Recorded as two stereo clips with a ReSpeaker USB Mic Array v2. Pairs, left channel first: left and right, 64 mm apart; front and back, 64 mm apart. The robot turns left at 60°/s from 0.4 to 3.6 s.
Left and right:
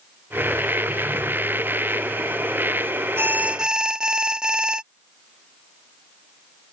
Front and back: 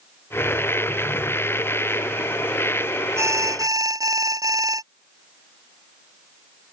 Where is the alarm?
140° right; by 4.8 s 165° right.